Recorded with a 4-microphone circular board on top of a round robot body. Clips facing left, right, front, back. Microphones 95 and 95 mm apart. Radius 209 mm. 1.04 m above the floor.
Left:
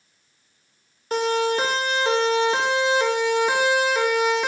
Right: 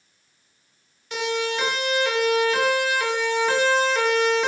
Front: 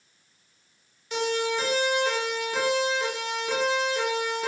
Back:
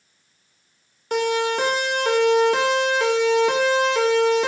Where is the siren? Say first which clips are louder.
Left 4 dB, back 5 dB; 140° left, 5.5 m; by 4.5 s 175° left, 5.5 m.